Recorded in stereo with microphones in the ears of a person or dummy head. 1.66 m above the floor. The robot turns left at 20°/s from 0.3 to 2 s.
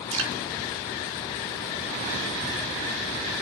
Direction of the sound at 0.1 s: 80° right.